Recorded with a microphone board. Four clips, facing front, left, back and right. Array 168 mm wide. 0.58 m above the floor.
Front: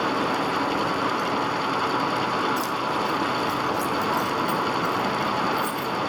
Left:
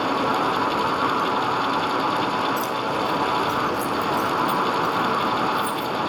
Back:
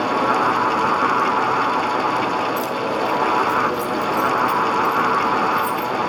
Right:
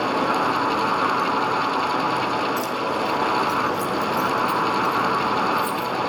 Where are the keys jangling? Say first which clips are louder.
Even, back 4 dB; 45° right, 2.5 m; by 5.9 s 40° right, 5 m.